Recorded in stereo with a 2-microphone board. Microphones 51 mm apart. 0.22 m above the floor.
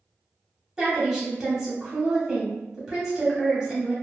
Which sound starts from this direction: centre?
A woman speaking, at 0.8 s.